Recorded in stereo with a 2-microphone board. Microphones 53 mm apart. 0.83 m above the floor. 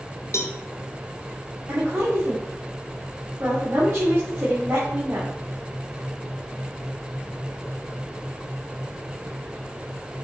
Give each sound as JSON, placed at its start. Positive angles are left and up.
{"t": 0.3, "sound": "a cowbell", "side_deg": 60, "distance_m": 0.9}
{"t": 1.7, "sound": "a woman speaking", "side_deg": -55, "distance_m": 3.0}